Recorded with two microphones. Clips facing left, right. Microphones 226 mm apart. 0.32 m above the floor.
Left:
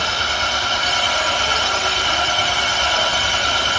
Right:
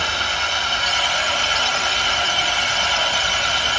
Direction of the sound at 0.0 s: 80° left.